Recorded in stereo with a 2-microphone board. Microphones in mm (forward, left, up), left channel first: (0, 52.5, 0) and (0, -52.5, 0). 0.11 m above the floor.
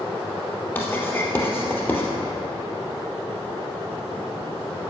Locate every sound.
0.8 s writing: 20° left (ahead or behind), 2.5 m